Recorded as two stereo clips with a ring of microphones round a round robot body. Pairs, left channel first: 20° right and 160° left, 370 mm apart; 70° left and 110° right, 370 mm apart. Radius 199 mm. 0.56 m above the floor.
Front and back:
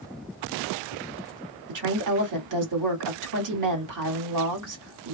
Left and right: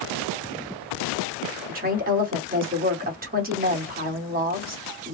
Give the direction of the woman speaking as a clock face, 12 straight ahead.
6 o'clock.